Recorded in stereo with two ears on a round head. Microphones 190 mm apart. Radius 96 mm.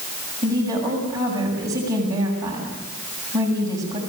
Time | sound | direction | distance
0.4 | a woman speaking | 15° right (ahead or behind) | 7 m